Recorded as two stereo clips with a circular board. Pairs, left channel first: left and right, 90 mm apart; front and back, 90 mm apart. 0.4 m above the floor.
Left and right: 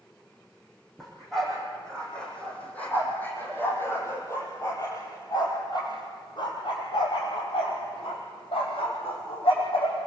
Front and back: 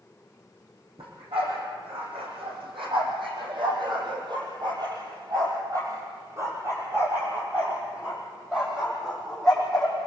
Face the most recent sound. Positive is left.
turn(degrees=85)